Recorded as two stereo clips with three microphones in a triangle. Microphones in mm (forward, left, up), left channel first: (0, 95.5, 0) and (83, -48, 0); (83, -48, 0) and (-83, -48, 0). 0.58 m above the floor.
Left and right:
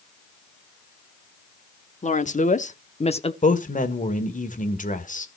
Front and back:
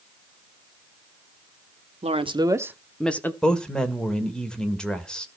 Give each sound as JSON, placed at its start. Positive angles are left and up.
{"t": 2.0, "sound": "a woman speaking", "azimuth_deg": 145, "distance_m": 1.1}
{"t": 3.4, "sound": "a man speaking", "azimuth_deg": 85, "distance_m": 1.7}